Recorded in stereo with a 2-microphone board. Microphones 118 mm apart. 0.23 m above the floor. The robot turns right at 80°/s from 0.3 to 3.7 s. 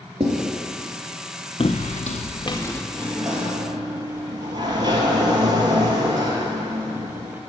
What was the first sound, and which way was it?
Writing, 55° right (ahead or behind).